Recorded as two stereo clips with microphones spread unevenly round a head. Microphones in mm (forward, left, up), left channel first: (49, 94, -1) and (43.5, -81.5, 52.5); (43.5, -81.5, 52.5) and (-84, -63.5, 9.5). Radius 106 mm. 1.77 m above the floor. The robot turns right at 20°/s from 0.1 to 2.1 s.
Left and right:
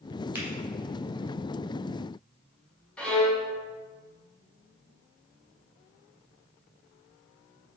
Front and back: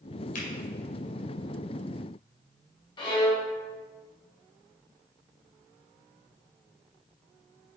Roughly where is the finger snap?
Ahead.